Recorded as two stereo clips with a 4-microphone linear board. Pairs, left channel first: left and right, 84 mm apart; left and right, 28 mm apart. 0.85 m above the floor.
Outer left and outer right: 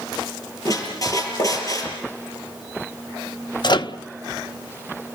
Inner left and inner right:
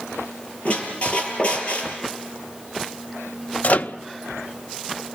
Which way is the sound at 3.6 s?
60° left (ahead or behind).